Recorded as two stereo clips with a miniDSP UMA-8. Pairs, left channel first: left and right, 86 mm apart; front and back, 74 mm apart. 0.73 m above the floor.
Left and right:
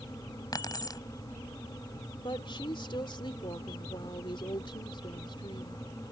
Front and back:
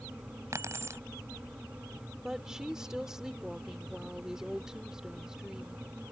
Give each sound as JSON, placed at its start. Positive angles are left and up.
{"t": 0.5, "sound": "keys jangling", "azimuth_deg": 130}
{"t": 2.2, "sound": "a woman speaking", "azimuth_deg": 100}